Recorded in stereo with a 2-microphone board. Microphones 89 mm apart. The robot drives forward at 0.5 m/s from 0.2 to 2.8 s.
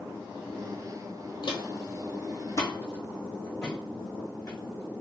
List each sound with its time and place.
1.4 s footsteps: 55° left (ahead or behind), 0.8 m; by 5.0 s 20° left (ahead or behind), 2.5 m